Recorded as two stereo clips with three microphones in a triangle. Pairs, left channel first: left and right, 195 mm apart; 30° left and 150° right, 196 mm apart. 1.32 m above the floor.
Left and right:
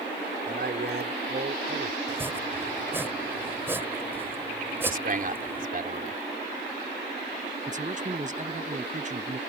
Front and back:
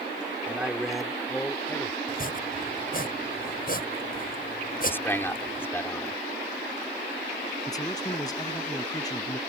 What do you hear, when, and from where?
0.5 s a man speaking: 70° right; by 2.0 s 45° right
2.1 s chopping: 10° right
4.9 s a man speaking: 50° right
7.7 s a man speaking: 40° right